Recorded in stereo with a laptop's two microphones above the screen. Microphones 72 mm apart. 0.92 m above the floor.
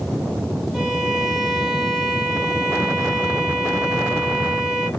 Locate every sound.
0.7 s a violin: centre (ahead or behind), 4.5 m